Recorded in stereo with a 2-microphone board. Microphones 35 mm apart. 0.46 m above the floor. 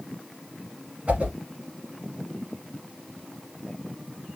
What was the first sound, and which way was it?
A whoosh, 45° right (ahead or behind).